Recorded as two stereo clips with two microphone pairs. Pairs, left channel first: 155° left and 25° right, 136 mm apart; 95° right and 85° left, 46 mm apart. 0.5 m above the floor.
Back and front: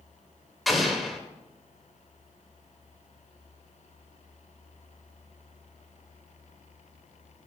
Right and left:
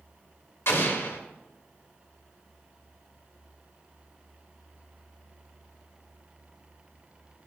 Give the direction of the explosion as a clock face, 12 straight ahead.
4 o'clock.